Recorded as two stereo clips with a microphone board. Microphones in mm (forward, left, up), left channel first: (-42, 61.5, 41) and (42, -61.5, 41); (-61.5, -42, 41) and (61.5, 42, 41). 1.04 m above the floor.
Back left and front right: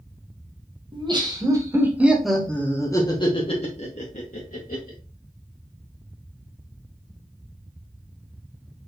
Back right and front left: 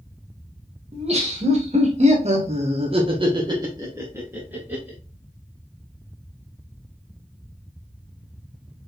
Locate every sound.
0.9 s laughter: 5° right, 1.5 m; by 5.0 s 115° left, 1.8 m